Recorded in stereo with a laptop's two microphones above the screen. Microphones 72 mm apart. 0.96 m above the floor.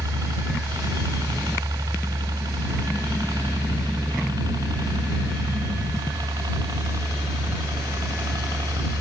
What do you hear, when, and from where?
0.0 s a helicopter: 60° right (ahead or behind); by 9.0 s 75° right (ahead or behind)